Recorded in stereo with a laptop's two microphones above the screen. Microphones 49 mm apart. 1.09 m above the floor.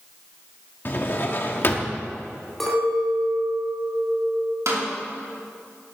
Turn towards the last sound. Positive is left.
turn(degrees=-80)